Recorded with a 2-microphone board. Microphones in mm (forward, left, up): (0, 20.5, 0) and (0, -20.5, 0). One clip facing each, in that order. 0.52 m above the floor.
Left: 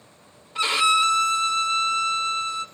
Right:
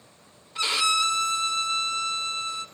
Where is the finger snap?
I don't hear a finger snap.